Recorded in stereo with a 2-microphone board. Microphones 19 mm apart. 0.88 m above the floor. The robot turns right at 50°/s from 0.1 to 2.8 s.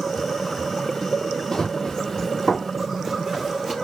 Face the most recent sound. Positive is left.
turn(degrees=-10)  # may be behind; listen again after turning